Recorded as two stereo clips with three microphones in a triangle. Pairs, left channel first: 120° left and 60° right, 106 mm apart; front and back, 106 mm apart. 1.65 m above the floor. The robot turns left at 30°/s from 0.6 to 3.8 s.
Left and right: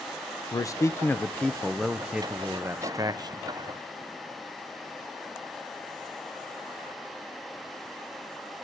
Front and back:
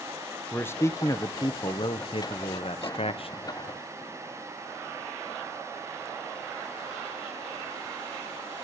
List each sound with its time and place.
0.5 s a man speaking: 65° left, 0.8 m; by 3.4 s 20° right, 0.8 m